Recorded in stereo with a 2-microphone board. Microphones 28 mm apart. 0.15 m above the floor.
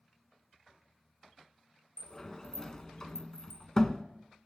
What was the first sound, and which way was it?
A sliding door, 25° left (ahead or behind).